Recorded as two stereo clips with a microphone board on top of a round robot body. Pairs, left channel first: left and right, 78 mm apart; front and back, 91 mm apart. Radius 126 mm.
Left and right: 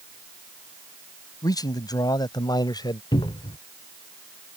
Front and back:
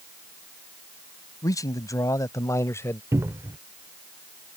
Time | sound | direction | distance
1.4 | a man speaking | 50° left | ?
3.1 | a cupboard door | 120° left | ?